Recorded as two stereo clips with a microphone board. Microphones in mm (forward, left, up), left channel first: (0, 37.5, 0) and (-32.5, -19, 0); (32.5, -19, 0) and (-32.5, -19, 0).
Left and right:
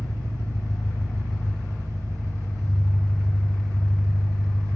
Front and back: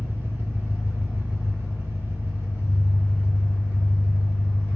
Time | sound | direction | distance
0.0 | an engine running | 120° right | 1.5 m